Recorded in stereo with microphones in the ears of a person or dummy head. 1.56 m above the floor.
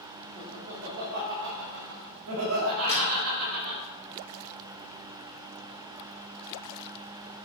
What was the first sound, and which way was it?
Laughter, 50° right (ahead or behind).